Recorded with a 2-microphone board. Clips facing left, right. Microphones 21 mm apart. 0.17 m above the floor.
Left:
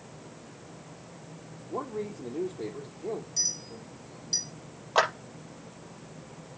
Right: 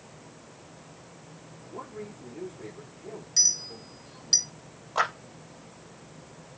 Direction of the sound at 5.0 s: 40° left (ahead or behind).